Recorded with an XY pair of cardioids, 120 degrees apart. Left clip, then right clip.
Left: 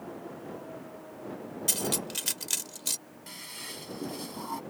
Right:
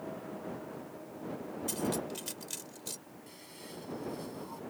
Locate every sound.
1.7 s cutlery clinking: 60° left
3.3 s a toilet flushing: 60° left